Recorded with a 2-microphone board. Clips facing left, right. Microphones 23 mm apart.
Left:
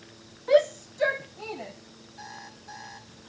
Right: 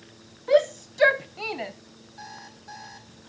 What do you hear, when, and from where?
0.5 s a shout: centre (ahead or behind), 0.6 m; by 1.7 s 75° right (ahead or behind), 1.2 m
2.2 s an alarm clock: 20° right (ahead or behind), 5 m